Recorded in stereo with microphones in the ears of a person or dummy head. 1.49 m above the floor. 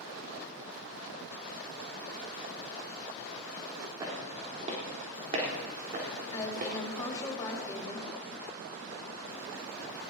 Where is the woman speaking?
20° left (ahead or behind), 3 m.